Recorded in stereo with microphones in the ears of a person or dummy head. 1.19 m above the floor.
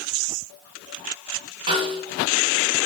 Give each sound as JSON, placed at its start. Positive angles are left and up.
{"t": 1.7, "sound": "a snare drum", "side_deg": -25, "distance_m": 1.0}